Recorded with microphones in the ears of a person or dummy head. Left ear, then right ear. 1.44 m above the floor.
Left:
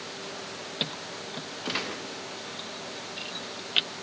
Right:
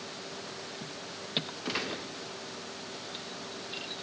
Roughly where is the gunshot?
Centre.